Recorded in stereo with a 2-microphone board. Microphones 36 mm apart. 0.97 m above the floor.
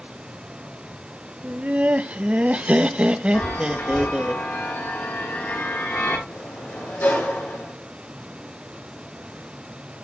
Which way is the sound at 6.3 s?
65° left (ahead or behind).